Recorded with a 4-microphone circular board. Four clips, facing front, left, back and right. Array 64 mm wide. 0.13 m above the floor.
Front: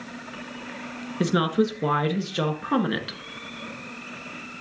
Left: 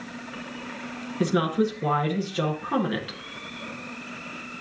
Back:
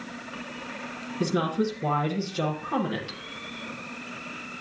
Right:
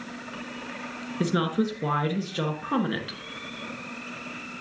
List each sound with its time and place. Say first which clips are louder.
1.2 s a woman speaking: left 2 dB, front 4 dB; 5° right, 1.7 m